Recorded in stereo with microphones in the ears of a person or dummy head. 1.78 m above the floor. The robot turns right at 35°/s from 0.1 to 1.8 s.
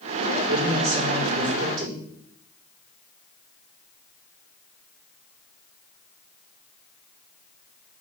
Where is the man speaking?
130° right, 5.5 m; by 2.0 s 85° right, 5.5 m.